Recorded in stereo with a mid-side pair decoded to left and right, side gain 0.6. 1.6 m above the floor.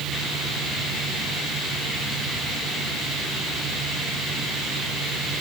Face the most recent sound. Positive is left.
turn(degrees=-15)